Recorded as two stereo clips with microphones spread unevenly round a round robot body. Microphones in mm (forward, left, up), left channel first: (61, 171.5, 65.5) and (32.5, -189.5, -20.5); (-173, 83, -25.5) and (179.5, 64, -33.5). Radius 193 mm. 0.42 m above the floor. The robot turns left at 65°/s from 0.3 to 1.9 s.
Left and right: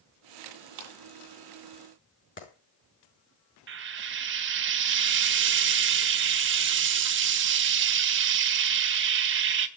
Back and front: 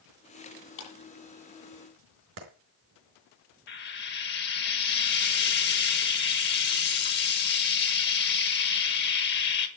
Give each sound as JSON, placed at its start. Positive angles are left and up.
{"t": 0.8, "sound": "a clap", "azimuth_deg": -125, "distance_m": 8.0}
{"t": 2.4, "sound": "a clap", "azimuth_deg": 25, "distance_m": 4.5}
{"t": 3.7, "sound": "frying", "azimuth_deg": -125, "distance_m": 1.3}